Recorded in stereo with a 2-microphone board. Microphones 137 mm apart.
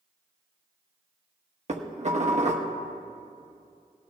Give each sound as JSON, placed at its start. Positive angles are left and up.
{"t": 1.7, "sound": "dishes clattering", "side_deg": -60, "distance_m": 1.1}